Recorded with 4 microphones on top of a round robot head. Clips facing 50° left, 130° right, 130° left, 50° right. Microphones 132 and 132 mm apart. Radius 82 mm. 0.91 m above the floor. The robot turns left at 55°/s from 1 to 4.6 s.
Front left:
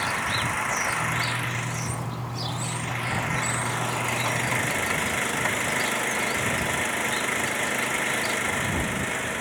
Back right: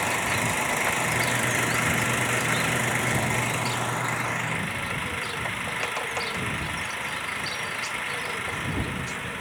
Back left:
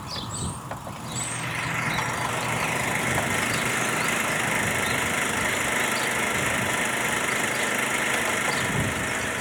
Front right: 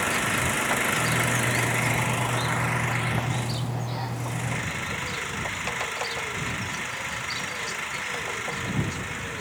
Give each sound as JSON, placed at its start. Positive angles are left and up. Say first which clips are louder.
{"t": 0.0, "sound": "an engine running", "louder": "back right 2 dB, front right 7 dB", "azimuth_deg": -65}